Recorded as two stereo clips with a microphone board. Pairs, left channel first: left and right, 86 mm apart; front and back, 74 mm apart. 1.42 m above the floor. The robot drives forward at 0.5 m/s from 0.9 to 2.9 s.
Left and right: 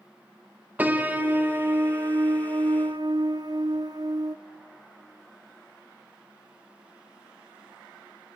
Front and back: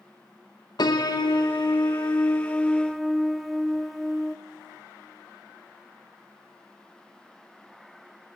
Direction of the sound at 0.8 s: 20° right.